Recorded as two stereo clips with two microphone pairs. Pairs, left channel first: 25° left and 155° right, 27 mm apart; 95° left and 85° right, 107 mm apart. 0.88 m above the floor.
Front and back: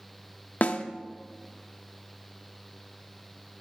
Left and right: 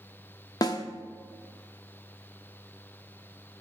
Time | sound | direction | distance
0.6 | a snare drum | 40° left | 1.0 m